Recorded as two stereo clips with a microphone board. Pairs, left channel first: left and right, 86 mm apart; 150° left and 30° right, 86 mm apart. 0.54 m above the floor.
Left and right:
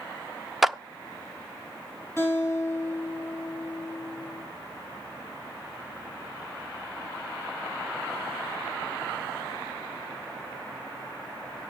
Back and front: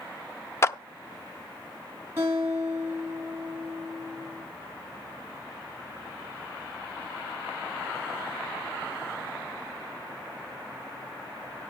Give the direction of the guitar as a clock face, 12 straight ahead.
11 o'clock.